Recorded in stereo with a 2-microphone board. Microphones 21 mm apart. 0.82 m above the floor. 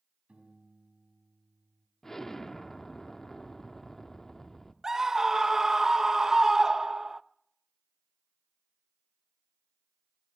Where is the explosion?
20° left (ahead or behind), 0.9 m.